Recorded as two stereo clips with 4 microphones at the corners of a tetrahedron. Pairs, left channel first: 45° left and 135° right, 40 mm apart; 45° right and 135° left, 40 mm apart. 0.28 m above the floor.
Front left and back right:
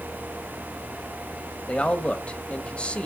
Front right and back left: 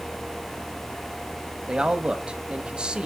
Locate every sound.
1.7 s a man speaking: 90° left, 1.1 m